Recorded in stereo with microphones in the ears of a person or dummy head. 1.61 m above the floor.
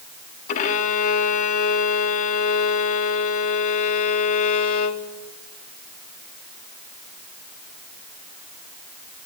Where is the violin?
35° left (ahead or behind), 0.7 m.